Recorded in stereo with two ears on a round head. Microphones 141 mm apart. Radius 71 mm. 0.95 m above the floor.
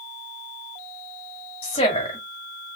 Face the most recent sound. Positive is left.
turn(degrees=35)  # may be behind; listen again after turning